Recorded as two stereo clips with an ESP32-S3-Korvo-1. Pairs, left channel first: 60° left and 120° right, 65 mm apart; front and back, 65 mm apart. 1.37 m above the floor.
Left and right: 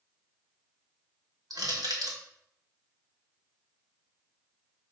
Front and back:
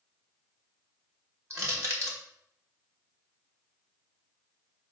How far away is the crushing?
About 1.9 m.